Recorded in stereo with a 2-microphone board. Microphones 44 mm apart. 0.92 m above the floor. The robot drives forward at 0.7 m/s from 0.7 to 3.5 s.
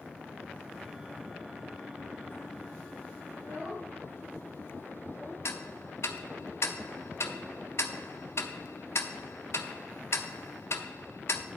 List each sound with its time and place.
3.3 s a child speaking: 70° right (ahead or behind), 4.5 m
5.5 s ticking: 80° left, 0.6 m